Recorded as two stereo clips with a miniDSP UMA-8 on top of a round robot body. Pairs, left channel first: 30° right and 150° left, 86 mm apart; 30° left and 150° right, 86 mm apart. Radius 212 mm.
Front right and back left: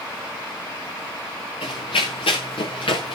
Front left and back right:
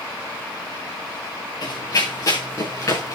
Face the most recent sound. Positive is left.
turn(degrees=-25)